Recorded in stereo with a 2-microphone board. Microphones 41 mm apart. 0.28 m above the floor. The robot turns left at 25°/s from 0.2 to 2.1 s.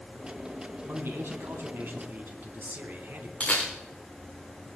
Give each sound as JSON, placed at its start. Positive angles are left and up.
{"t": 0.8, "sound": "a man speaking", "azimuth_deg": -90, "distance_m": 3.0}
{"t": 3.4, "sound": "a camera shutter", "side_deg": 20, "distance_m": 6.0}